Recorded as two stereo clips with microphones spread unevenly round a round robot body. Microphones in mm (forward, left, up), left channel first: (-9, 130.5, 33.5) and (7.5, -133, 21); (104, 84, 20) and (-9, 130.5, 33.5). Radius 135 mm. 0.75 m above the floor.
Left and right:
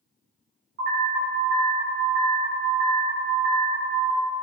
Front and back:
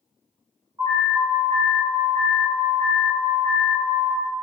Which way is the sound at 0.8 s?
125° right.